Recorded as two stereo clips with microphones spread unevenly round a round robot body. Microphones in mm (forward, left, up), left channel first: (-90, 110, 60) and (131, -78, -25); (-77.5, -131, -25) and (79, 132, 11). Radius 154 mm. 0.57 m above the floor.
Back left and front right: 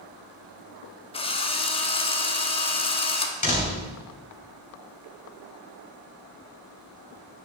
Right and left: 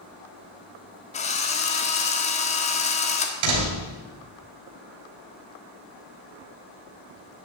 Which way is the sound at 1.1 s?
135° right.